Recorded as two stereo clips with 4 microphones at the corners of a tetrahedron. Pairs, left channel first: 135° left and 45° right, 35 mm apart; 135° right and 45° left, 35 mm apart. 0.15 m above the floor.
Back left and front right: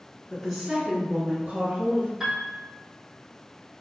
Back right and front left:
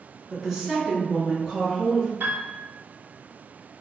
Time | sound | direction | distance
0.3 | a woman speaking | 105° left | 1.2 m
2.2 | a piano | 30° left | 1.2 m